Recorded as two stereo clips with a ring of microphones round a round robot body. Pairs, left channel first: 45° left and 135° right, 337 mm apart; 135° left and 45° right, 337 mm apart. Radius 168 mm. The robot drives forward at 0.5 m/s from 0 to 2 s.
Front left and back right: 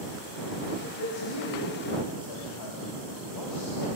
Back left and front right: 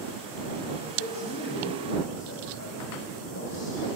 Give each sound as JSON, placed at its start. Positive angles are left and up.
{"t": 0.8, "sound": "a man speaking", "azimuth_deg": 70, "distance_m": 4.5}